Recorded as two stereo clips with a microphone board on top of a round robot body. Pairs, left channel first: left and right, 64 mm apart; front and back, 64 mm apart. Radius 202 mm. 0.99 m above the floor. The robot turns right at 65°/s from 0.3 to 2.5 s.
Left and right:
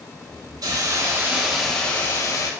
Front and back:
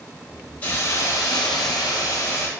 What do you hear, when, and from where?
0.6 s a hiss: 65° right, 0.8 m; by 2.5 s 55° left, 0.8 m